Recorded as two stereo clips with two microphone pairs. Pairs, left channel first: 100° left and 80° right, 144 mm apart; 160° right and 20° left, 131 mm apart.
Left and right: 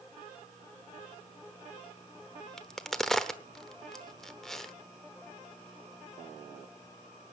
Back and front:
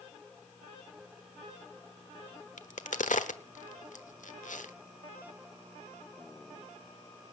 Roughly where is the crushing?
I don't hear crushing.